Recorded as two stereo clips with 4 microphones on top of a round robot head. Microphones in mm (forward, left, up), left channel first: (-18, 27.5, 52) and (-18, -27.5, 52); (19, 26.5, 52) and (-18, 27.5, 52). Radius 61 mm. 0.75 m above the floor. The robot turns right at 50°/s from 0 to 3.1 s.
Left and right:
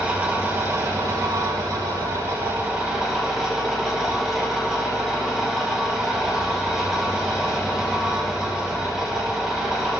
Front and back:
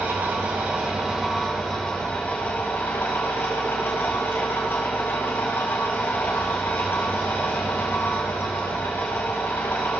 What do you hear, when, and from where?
0.0 s an engine running: 160° right, 2.5 m; by 10.0 s 5° right, 2.5 m